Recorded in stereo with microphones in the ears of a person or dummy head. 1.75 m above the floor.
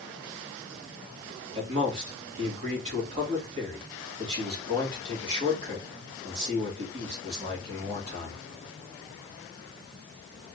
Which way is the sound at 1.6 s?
40° right (ahead or behind).